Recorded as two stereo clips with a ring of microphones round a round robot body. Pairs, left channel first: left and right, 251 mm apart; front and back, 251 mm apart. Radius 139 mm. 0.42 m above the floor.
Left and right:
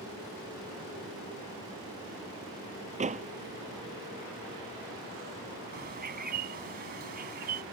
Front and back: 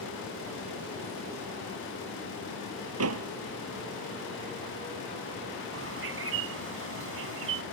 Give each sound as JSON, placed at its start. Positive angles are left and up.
{"t": 3.0, "sound": "a door slam", "azimuth_deg": -150}
{"t": 5.7, "sound": "a bird", "azimuth_deg": -145}